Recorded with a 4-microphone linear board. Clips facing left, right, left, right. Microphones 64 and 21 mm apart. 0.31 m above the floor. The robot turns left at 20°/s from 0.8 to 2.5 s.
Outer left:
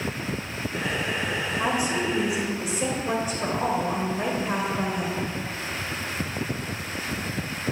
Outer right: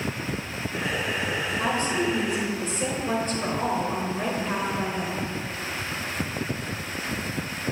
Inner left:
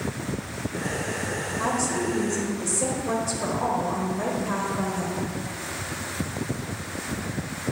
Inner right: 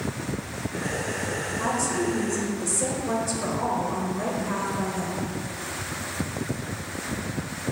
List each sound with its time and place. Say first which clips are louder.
1.6 s a woman speaking: even, even; 15° left (ahead or behind), 1.1 m; by 5.3 s 10° left (ahead or behind), 1.1 m